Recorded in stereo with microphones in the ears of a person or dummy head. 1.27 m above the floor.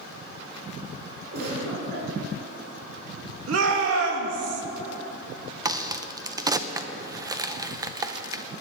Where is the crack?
20° right (ahead or behind), 0.5 m.